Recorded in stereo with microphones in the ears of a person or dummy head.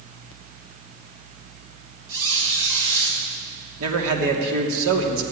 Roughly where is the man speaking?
Right.